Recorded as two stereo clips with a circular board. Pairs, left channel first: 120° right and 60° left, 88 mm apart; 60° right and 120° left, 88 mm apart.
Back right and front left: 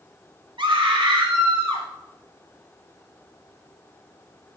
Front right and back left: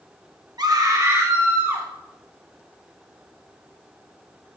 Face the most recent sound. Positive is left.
turn(degrees=55)